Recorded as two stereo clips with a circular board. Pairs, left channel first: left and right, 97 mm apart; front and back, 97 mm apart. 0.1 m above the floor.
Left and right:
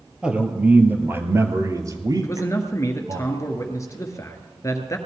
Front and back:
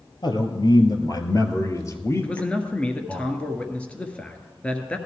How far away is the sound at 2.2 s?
About 1.6 m.